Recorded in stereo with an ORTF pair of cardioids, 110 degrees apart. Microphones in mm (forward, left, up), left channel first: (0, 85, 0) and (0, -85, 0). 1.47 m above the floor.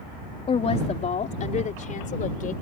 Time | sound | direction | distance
0.5 | a woman speaking | 35° left | ?